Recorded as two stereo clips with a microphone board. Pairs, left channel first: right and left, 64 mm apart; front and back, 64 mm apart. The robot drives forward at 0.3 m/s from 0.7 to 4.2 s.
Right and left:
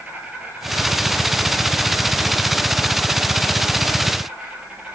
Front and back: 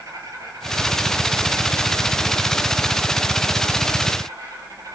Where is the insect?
155° left, 4.5 m; by 4.9 s 160° left, 5.5 m.